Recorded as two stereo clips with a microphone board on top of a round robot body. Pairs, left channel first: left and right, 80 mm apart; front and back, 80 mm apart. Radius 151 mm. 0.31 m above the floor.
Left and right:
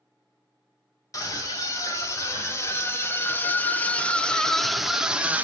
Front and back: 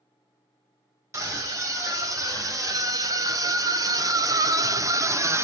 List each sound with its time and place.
1.1 s a scream: 135° left, 2.5 m; by 5.4 s 150° right, 1.1 m